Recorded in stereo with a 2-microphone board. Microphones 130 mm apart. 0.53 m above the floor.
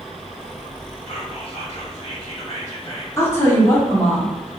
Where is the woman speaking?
20° left (ahead or behind), 0.8 m.